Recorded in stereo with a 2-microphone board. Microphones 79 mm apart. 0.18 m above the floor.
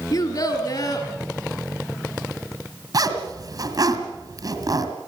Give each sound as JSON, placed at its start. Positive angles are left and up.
{"t": 0.1, "sound": "a child speaking", "side_deg": 55, "distance_m": 2.5}
{"t": 2.9, "sound": "a zipper", "side_deg": -55, "distance_m": 2.5}